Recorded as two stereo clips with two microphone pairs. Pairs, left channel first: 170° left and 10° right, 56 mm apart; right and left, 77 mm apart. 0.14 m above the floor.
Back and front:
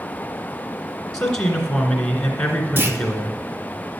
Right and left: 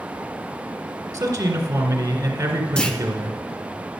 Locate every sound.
1.1 s a man speaking: 95° left, 2.0 m
2.8 s a clunk: 15° right, 1.0 m